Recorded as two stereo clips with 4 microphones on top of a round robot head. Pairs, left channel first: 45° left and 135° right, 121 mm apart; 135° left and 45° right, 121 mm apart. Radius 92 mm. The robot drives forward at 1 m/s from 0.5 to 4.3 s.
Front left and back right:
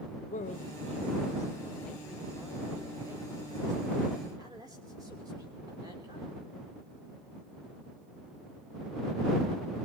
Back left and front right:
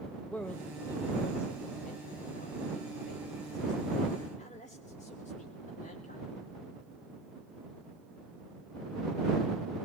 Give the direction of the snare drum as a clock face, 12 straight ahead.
I don't hear a snare drum.